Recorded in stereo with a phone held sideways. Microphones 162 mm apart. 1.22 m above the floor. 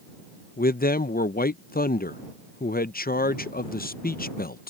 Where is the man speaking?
65° left (ahead or behind).